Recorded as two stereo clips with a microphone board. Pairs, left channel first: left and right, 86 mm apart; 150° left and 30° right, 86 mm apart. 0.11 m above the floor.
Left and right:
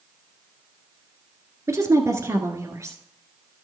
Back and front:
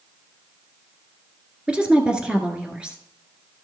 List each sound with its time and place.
1.7 s a woman speaking: 100° right, 1.3 m